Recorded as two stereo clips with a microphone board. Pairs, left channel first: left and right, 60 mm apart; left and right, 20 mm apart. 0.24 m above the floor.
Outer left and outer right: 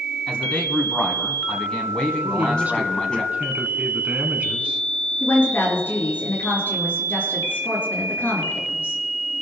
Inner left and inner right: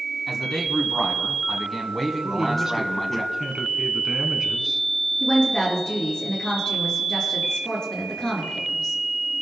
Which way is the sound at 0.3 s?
15° left (ahead or behind).